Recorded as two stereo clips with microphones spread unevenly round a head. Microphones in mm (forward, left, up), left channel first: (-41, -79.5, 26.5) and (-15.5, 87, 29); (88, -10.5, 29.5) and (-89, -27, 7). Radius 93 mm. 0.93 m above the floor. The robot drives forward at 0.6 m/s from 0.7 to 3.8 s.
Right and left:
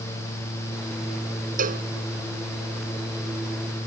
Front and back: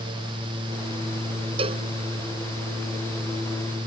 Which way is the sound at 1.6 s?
120° left.